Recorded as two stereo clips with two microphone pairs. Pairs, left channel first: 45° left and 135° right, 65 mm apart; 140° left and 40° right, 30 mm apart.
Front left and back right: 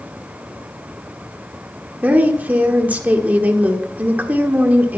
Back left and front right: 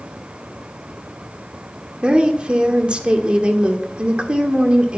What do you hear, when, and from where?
2.0 s a woman speaking: 80° right, 1.6 m